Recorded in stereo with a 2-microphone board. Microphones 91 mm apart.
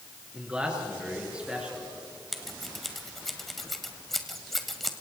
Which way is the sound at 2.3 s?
Centre (ahead or behind).